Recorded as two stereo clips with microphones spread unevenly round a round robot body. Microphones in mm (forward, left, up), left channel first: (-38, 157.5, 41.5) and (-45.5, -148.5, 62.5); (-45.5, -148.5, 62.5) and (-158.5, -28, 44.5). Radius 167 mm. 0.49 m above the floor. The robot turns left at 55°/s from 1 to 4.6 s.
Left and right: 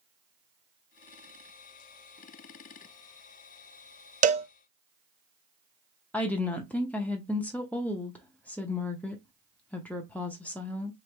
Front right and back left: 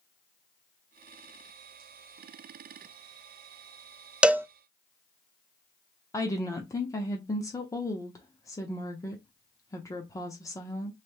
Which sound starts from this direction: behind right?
A cowbell, at 4.2 s.